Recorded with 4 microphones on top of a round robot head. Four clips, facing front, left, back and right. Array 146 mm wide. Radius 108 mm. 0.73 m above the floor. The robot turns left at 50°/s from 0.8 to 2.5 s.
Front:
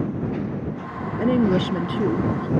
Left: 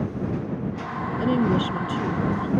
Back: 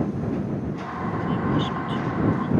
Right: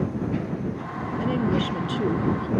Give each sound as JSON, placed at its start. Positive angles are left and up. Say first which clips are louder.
{"t": 1.2, "sound": "a woman speaking", "louder": "left 2 dB, front 7 dB", "azimuth_deg": 25}